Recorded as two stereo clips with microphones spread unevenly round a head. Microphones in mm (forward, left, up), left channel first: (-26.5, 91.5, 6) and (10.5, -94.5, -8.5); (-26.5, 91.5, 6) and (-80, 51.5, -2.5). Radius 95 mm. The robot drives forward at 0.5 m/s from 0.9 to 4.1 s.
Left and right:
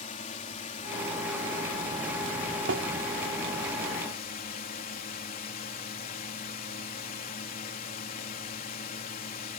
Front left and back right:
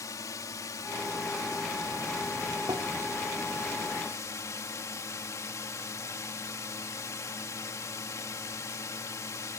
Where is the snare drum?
95° right.